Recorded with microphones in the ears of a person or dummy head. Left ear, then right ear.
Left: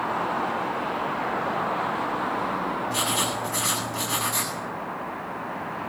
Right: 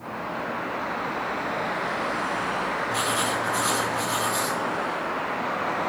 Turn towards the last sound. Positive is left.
turn(degrees=15)  # may be behind; listen again after turning